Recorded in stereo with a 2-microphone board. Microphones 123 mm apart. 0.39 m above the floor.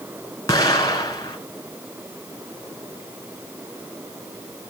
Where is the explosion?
30° left (ahead or behind), 2 m.